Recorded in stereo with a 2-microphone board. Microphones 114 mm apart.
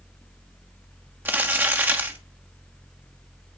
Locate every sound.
1.2 s crumpling: 15° right (ahead or behind), 1.2 m